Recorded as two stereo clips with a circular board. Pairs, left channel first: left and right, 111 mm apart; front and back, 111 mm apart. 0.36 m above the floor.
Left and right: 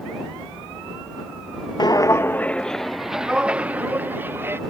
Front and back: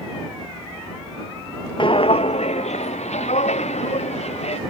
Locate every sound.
1.8 s footsteps: 40° left; by 4.6 s 20° right